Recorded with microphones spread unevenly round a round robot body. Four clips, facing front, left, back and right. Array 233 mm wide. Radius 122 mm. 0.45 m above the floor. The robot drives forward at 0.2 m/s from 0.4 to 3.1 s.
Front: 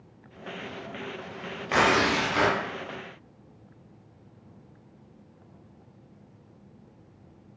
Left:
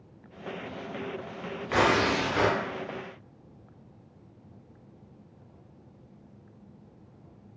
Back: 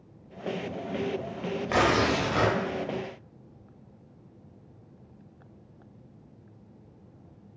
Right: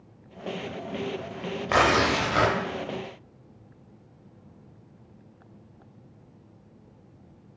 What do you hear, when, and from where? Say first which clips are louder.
1.7 s tearing paper: right 2 dB, front 1 dB; 115° right, 0.6 m; by 2.6 s 130° right, 0.7 m